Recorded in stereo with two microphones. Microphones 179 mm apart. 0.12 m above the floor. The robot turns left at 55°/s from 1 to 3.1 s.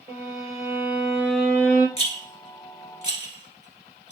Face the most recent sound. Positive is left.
turn(degrees=40)  # may be behind; listen again after turning